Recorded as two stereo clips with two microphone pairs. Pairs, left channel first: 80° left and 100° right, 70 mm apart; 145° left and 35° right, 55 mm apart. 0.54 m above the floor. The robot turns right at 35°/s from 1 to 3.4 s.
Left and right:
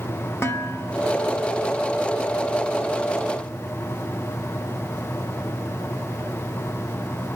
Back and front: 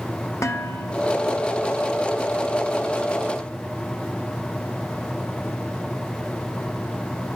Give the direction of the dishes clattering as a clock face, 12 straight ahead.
8 o'clock.